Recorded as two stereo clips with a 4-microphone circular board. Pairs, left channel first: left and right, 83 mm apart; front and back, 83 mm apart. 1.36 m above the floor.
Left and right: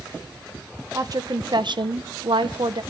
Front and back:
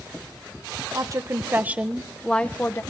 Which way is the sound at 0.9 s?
135° right.